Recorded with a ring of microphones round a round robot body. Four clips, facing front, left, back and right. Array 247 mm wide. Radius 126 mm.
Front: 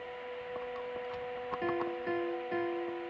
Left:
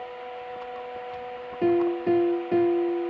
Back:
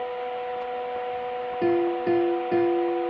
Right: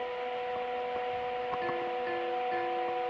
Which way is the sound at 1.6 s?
130° left.